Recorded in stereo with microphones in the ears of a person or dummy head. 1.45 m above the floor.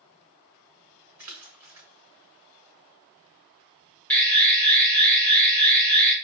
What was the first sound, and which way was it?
A splash, 10° right (ahead or behind).